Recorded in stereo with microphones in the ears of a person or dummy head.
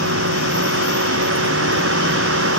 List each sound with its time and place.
0.0 s a vehicle: 70° right (ahead or behind)